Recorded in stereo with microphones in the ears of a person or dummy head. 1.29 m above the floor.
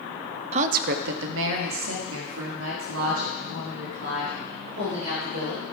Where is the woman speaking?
40° right (ahead or behind), 0.5 m; by 5.6 s 75° right (ahead or behind), 4.5 m.